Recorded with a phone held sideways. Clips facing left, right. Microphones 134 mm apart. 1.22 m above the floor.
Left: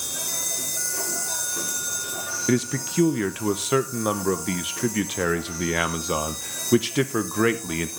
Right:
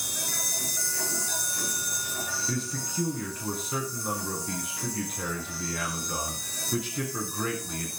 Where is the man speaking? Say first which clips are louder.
Left 14 dB; 85° left, 0.7 m.